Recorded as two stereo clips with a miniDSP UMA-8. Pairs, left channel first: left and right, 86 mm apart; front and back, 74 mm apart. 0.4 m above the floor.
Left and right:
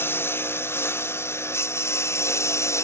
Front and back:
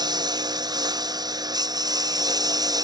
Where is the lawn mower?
155° left; by 2.8 s 145° left.